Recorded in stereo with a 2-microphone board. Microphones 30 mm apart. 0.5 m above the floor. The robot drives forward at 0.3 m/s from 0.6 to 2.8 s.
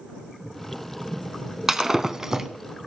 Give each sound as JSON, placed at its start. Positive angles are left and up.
{"t": 1.7, "sound": "breaking glass", "side_deg": -15, "distance_m": 0.9}